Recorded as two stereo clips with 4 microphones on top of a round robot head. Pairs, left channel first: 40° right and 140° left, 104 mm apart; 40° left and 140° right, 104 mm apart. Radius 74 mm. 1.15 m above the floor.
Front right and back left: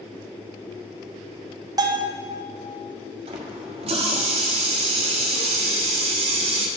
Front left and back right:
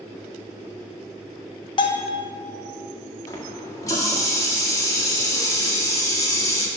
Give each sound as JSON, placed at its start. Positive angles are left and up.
{"t": 1.8, "sound": "a bell", "azimuth_deg": 85, "distance_m": 0.9}
{"t": 3.3, "sound": "a running tap", "azimuth_deg": 100, "distance_m": 1.4}